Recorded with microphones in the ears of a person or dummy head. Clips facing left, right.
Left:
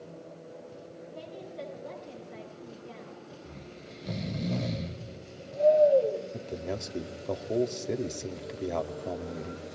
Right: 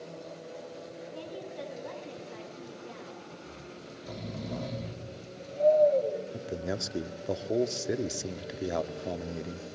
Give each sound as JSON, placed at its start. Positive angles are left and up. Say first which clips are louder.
{"t": 1.1, "sound": "a woman speaking", "louder": "even", "side_deg": -65, "distance_m": 9.0}
{"t": 3.5, "sound": "snoring", "louder": "even", "side_deg": 30, "distance_m": 1.0}
{"t": 6.3, "sound": "a man speaking", "louder": "right 1 dB", "side_deg": -5, "distance_m": 0.7}